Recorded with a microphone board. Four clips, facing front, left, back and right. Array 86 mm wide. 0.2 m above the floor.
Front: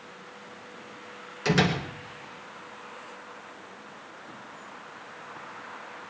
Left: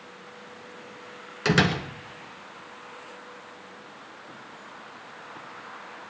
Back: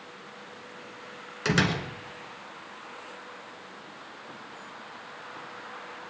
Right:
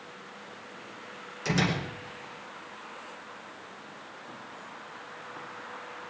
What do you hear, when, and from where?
1.4 s a door slam: 110° left, 1.6 m